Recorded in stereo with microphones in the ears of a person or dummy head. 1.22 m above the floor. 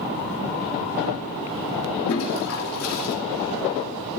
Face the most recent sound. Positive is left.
turn(degrees=80)